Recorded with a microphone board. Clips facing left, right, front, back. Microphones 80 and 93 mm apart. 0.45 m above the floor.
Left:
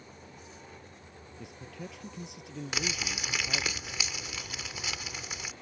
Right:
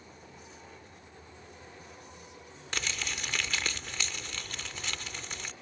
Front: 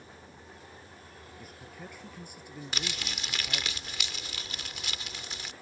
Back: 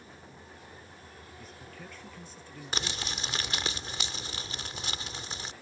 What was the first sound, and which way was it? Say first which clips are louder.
A man speaking: left 9 dB, front 1 dB; 80° left.